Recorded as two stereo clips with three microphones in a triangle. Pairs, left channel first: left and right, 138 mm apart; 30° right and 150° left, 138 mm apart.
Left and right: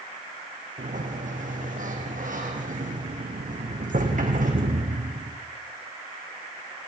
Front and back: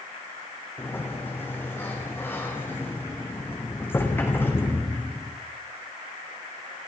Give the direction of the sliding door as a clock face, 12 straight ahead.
3 o'clock.